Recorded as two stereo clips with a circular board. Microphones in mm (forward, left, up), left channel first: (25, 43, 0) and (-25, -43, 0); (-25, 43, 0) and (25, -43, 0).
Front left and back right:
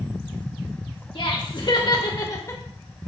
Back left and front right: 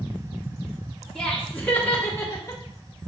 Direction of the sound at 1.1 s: 40° left.